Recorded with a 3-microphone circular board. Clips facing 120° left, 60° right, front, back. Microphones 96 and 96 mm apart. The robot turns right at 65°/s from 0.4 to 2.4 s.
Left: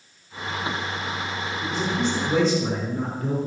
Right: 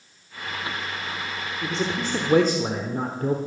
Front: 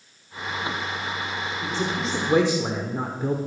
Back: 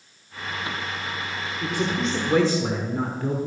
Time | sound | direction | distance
1.6 | a man speaking | 120° right | 1.2 m